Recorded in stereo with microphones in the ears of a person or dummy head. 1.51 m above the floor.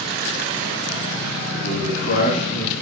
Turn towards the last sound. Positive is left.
turn(degrees=25)  # may be behind; listen again after turning